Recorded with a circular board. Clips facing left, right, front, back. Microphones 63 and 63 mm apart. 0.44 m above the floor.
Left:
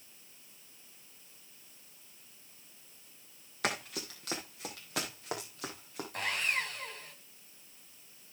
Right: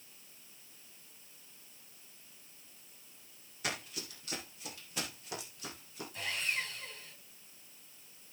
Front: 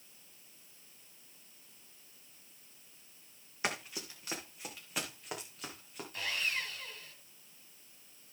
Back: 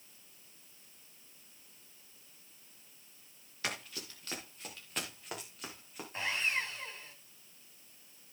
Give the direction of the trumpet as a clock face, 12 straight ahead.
No trumpet in this recording.